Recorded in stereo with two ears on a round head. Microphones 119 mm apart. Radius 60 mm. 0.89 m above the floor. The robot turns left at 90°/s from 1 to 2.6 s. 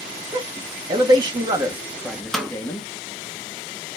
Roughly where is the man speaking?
Right.